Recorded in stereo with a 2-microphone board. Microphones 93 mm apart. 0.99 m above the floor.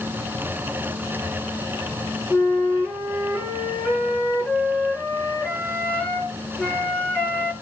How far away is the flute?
About 8.5 m.